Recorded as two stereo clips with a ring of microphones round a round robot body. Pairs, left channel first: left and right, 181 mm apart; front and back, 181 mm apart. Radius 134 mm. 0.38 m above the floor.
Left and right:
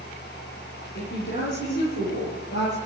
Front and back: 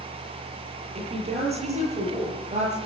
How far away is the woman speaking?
About 9 m.